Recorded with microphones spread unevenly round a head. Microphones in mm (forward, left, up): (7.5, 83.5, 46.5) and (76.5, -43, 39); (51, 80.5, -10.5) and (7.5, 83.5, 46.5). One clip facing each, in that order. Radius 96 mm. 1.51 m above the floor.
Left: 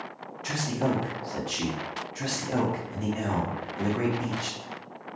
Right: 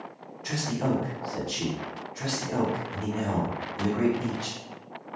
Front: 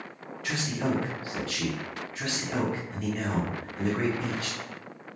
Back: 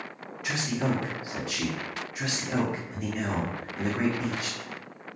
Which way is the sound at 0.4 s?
170° right.